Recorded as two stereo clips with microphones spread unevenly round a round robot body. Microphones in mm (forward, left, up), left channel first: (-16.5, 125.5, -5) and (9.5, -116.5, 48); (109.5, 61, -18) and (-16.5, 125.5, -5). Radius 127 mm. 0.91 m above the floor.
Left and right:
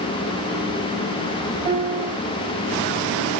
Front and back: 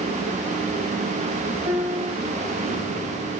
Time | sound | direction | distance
1.6 | a piano | 150° right | 1.0 m